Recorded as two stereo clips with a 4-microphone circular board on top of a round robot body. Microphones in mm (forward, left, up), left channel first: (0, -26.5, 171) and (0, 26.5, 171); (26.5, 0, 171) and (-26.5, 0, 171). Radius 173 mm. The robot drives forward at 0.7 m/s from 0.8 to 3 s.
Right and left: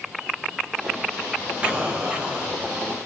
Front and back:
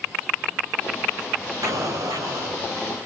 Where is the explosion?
155° left, 3 m; by 2.6 s 160° left, 3.5 m.